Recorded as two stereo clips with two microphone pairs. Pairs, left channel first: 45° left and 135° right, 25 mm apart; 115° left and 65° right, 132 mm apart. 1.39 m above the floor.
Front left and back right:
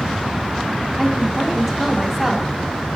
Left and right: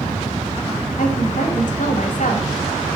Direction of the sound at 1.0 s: 140° left.